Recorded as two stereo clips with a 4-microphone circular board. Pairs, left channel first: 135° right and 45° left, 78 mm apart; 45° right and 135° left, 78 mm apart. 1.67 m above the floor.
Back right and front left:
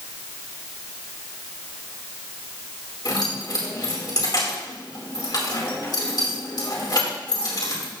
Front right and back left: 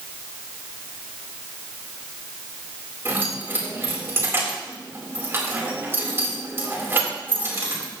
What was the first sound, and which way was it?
Keys jangling, 165° right.